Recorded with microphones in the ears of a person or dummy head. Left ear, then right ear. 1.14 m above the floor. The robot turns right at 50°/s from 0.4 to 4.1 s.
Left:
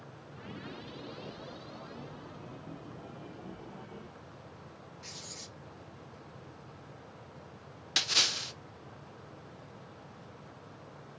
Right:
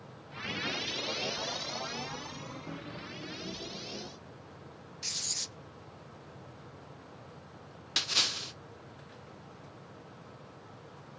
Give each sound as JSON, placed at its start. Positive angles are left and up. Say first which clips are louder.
{"t": 5.0, "sound": "writing", "louder": "right 11 dB", "side_deg": -45, "distance_m": 0.8}
{"t": 8.0, "sound": "a splash", "louder": "left 1 dB", "side_deg": 5, "distance_m": 0.6}